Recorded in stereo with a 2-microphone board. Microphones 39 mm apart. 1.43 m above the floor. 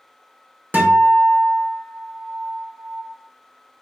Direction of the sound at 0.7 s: 50° right (ahead or behind).